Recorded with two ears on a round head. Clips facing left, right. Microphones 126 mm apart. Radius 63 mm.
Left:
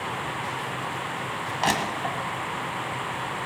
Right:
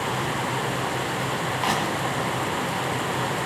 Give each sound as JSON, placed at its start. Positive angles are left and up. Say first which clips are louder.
{"t": 1.6, "sound": "crushing", "louder": "left 1 dB", "side_deg": 50, "distance_m": 2.0}